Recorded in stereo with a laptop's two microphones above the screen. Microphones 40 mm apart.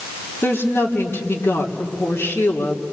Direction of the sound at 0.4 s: 75° left (ahead or behind).